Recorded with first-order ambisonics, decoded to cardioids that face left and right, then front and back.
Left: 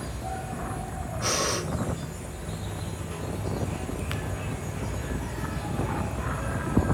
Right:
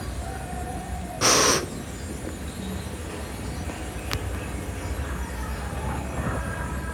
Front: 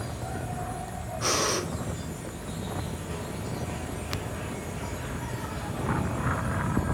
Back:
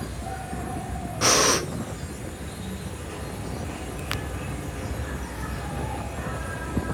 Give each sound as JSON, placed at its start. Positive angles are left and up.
{"t": 0.0, "sound": "an insect", "azimuth_deg": -110, "distance_m": 6.5}
{"t": 1.2, "sound": "breathing", "azimuth_deg": -125, "distance_m": 0.9}